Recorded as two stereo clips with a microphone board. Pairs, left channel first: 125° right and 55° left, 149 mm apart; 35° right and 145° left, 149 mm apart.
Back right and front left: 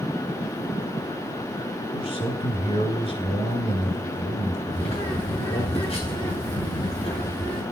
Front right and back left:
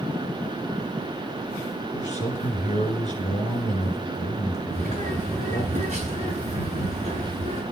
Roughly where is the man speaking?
Right.